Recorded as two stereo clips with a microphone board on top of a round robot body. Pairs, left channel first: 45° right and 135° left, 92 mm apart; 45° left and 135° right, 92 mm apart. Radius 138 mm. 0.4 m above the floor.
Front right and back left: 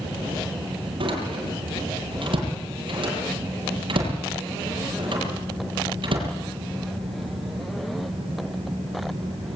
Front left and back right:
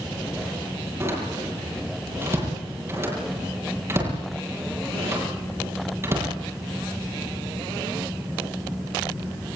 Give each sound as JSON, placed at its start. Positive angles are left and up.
{"t": 1.0, "sound": "a door slam", "azimuth_deg": 165, "distance_m": 9.5}